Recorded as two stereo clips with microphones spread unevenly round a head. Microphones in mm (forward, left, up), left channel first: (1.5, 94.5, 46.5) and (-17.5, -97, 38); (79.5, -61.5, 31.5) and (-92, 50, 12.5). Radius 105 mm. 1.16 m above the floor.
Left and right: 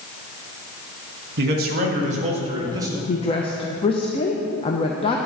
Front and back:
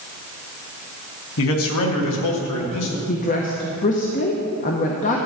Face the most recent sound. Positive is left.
turn(degrees=20)